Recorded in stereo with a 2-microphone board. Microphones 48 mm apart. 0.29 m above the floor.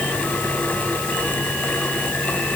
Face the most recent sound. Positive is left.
No sound to turn to.